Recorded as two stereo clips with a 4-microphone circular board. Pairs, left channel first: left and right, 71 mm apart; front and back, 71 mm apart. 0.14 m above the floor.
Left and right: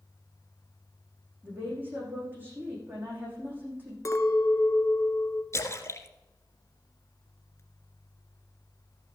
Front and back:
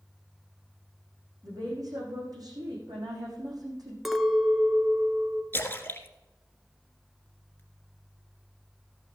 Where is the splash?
55° left, 1.5 m.